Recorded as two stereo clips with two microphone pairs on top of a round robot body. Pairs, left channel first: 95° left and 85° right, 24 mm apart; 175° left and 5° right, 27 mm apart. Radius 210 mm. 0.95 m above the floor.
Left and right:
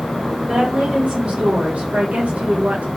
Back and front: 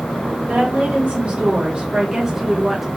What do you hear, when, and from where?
0.5 s a woman speaking: 45° right, 2 m; by 2.9 s 95° right, 1.6 m